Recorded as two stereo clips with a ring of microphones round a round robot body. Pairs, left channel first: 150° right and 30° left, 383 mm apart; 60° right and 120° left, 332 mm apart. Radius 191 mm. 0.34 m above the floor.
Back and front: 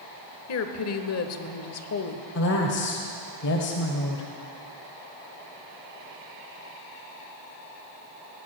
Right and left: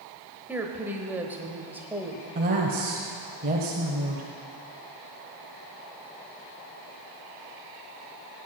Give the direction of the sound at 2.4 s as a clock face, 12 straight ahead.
6 o'clock.